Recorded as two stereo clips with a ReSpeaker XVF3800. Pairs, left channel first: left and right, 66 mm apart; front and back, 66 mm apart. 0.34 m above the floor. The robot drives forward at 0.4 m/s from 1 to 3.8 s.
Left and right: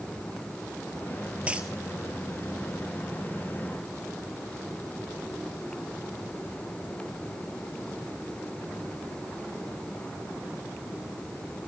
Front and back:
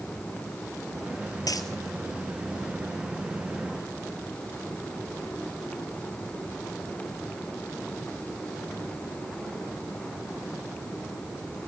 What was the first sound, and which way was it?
A dropped coin, 20° right.